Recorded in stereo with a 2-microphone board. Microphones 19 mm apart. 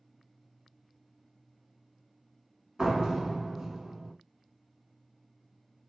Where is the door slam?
35° right (ahead or behind), 1.1 m.